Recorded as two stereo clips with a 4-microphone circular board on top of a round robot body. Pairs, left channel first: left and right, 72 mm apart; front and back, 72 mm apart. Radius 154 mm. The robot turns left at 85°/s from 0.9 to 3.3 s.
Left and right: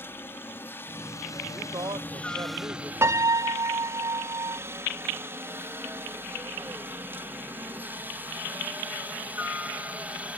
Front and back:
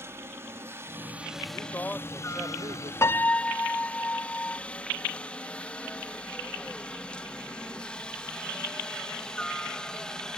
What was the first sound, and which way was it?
A helicopter, 140° left.